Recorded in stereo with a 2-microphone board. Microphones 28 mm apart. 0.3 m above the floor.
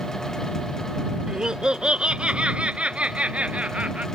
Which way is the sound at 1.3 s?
30° right (ahead or behind).